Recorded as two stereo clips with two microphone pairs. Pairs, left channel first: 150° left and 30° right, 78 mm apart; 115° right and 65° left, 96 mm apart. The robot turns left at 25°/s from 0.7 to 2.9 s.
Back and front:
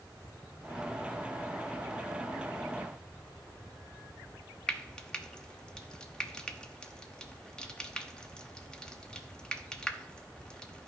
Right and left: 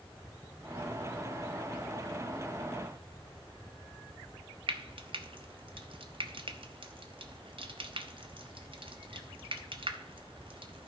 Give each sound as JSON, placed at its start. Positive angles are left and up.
{"t": 4.7, "sound": "frying", "azimuth_deg": 70, "distance_m": 0.9}